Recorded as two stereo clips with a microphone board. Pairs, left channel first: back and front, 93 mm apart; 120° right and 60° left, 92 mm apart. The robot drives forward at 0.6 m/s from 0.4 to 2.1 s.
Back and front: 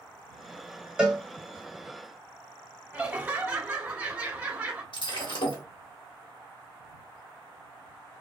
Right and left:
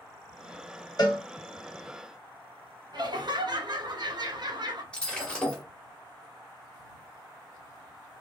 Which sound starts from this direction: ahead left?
Laughter, at 2.9 s.